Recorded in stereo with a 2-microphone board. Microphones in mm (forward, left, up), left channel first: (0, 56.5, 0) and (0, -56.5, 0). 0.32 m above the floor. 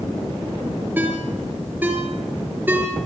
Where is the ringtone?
15° right (ahead or behind), 4.5 m.